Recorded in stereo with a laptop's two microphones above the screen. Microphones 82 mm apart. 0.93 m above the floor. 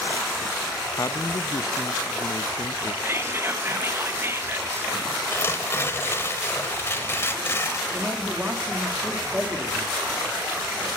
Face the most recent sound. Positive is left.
turn(degrees=-20)  # may be behind; listen again after turning